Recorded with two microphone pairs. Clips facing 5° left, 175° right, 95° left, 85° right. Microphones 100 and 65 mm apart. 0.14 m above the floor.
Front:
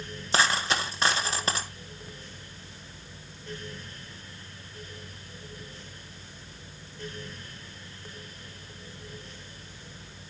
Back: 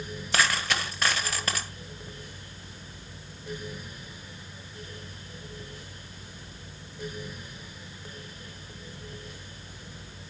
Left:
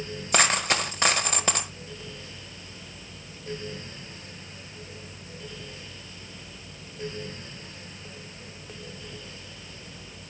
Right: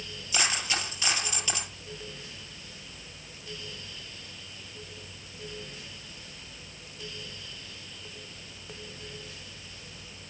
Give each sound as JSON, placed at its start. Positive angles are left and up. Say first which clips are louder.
{"t": 0.3, "sound": "a dropped coin", "louder": "front 2 dB, left 7 dB", "azimuth_deg": 65, "distance_m": 1.3}